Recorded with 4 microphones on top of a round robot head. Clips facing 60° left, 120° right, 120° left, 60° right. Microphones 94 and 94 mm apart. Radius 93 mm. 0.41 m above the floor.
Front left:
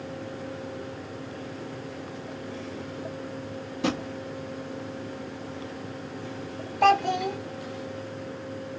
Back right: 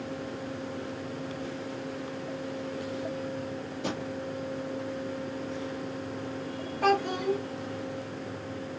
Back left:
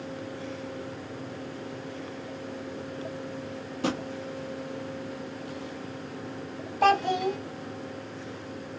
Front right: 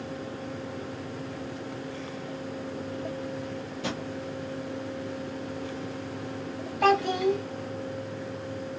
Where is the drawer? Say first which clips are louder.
Front left 7 dB, back left 5 dB; 80° left, 1.1 m.